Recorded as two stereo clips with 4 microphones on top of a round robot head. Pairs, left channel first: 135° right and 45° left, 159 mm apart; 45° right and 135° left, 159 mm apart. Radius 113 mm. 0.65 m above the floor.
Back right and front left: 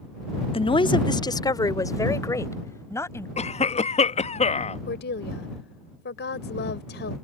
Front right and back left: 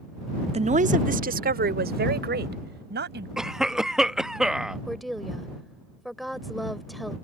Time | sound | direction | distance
0.5 | a woman speaking | 175° left | ?
3.4 | a cough | 140° right | ?
4.9 | a woman speaking | 135° right | ?